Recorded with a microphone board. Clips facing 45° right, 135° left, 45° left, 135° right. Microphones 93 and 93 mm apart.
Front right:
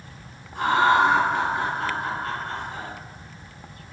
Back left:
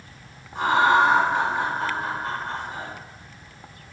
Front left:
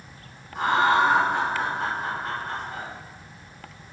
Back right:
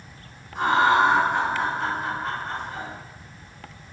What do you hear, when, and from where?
0.6 s laughter: 120° left, 1.5 m